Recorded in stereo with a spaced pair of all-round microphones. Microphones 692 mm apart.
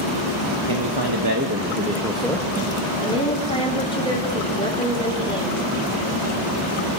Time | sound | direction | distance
0.7 | a man speaking | 40° right (ahead or behind) | 1.7 m
3.0 | a woman speaking | 10° left (ahead or behind) | 4 m